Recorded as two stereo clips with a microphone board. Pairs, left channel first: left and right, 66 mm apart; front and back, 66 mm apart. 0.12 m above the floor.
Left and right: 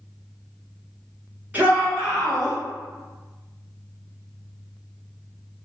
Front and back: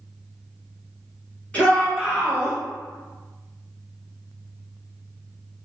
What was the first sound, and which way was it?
A shout, 50° right.